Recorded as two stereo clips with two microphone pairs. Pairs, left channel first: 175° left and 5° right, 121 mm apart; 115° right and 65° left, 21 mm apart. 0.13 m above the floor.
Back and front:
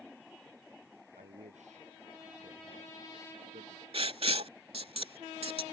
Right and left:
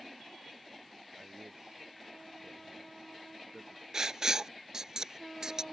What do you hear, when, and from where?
1.2 s a man speaking: 15° left
3.9 s writing: 20° left